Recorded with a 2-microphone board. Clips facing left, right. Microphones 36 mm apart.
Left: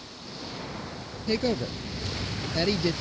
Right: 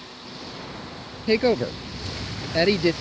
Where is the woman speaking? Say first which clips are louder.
Right 7 dB; 35° right (ahead or behind).